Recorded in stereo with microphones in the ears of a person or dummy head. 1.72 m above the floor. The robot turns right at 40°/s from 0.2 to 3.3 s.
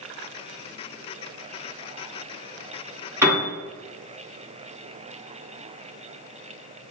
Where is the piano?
15° right (ahead or behind), 1.2 m; by 3.5 s 10° right (ahead or behind), 1.2 m.